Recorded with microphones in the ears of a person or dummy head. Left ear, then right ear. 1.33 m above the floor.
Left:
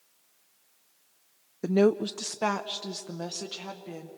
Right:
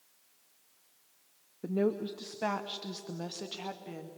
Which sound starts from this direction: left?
A woman speaking, at 1.6 s.